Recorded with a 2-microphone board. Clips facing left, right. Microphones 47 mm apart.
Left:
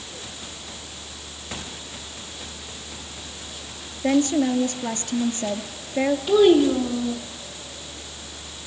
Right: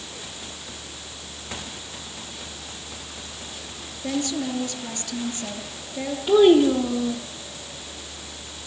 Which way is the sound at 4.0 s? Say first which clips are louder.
Left 7 dB; 45° left (ahead or behind).